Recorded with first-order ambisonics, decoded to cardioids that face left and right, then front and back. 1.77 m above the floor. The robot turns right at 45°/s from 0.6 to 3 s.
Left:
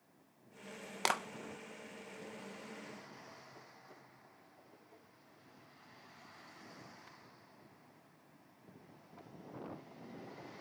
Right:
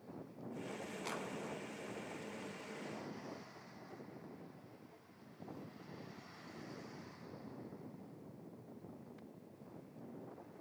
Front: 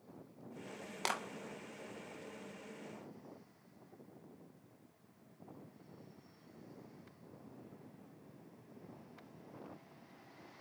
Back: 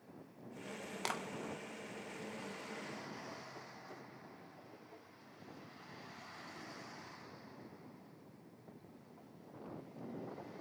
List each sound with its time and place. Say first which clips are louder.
1.1 s a clap: left 11 dB, front 3 dB; 80° left, 1.6 m; by 1.2 s 90° left, 1.6 m